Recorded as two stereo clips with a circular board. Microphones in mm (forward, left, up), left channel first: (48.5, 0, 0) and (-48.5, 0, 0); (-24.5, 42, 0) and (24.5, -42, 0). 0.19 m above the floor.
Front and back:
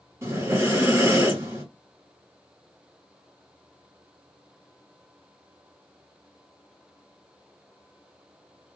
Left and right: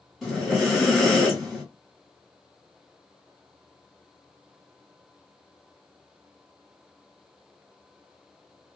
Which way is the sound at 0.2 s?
150° right.